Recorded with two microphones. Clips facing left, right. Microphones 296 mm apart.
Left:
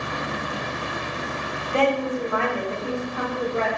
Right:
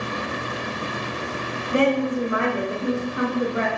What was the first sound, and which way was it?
A woman speaking, 15° right (ahead or behind).